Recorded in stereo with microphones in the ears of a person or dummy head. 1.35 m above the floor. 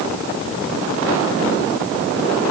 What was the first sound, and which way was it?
Only background noise.